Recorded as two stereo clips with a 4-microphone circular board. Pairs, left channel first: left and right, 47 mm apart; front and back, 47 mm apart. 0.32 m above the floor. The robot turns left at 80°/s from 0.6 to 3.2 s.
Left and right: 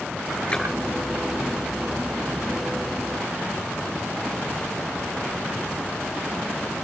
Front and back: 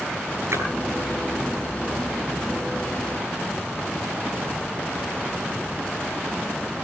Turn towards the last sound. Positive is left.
turn(degrees=-50)